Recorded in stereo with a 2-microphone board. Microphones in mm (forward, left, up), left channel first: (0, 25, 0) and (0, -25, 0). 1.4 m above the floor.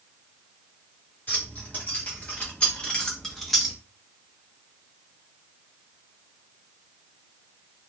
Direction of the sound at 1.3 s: 40° left (ahead or behind).